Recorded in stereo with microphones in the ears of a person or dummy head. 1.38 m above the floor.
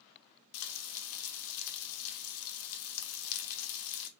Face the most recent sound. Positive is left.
turn(degrees=70)  # may be behind; listen again after turning